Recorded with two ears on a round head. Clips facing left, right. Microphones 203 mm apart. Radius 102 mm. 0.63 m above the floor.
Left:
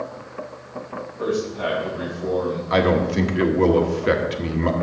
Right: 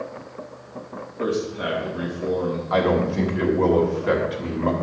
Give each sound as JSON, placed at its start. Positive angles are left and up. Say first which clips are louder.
{"t": 1.2, "sound": "a man speaking", "louder": "left 1 dB", "side_deg": -25, "distance_m": 4.5}
{"t": 2.7, "sound": "a man speaking", "louder": "left 2 dB", "side_deg": 30, "distance_m": 1.5}